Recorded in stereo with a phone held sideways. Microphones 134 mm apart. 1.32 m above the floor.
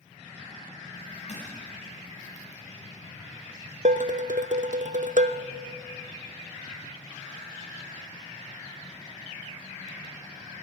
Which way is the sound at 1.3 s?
60° left (ahead or behind).